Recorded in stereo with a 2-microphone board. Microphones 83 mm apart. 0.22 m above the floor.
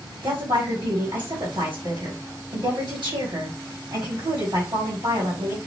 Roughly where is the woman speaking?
Right.